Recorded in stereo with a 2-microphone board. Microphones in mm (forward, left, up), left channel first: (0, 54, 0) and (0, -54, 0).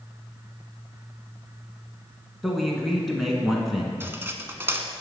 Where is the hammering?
No hammering in this recording.